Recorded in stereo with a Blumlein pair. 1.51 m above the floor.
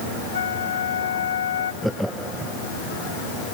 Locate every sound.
0.3 s a flute: 65° left
1.8 s laughter: straight ahead